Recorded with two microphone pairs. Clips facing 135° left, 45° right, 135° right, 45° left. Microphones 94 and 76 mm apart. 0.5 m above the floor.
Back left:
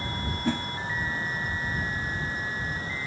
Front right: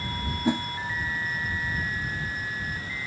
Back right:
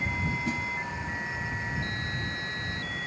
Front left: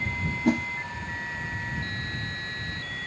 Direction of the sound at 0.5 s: 25° left.